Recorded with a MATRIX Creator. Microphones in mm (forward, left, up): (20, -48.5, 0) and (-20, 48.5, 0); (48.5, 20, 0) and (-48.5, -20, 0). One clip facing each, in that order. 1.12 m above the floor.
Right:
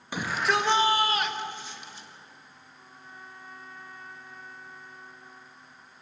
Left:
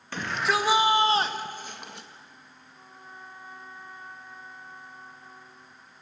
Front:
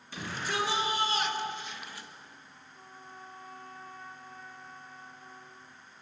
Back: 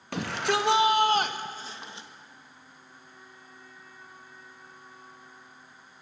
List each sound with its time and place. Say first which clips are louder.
0.1 s a shout: even, back 7 dB; 145° right, 2.0 m; by 2.1 s 135° left, 1.9 m
2.7 s a trumpet: left 2 dB, front 4 dB; 45° left, 1.6 m